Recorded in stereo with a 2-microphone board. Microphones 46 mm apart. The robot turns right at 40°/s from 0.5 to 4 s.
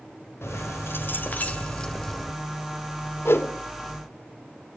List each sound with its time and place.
0.4 s keys jangling: 105° left, 1.7 m; by 2.3 s straight behind, 1.7 m
3.2 s a whoosh: 70° left (ahead or behind), 1.8 m; by 3.5 s 60° left (ahead or behind), 1.8 m